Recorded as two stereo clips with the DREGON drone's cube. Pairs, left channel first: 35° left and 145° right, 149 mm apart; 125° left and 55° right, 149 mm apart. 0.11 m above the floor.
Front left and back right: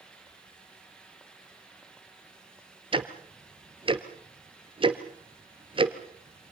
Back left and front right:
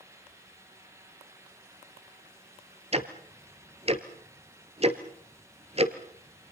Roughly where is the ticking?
Right.